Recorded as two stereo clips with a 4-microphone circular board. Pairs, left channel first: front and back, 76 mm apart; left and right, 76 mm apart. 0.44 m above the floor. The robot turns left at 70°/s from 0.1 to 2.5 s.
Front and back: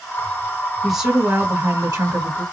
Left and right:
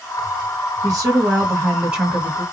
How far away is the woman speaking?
About 1.7 m.